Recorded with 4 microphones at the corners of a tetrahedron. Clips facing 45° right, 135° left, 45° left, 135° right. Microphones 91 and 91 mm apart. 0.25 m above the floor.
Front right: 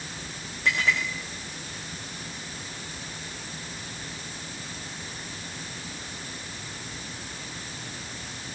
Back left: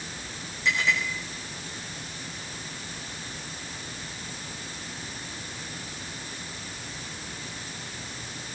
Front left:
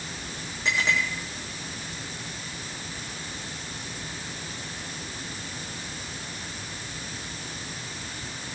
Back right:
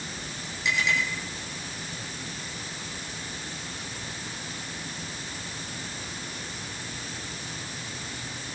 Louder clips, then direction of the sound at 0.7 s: Front right 1 dB, front left 1 dB; 10° right.